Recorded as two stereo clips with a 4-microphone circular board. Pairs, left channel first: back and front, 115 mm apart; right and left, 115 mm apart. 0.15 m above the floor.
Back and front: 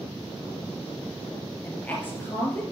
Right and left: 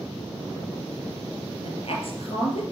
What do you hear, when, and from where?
1.6 s a woman speaking: 105° right, 3 m